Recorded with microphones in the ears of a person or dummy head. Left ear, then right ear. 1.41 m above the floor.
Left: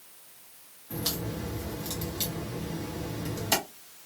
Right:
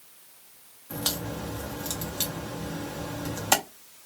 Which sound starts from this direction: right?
A crack, at 0.9 s.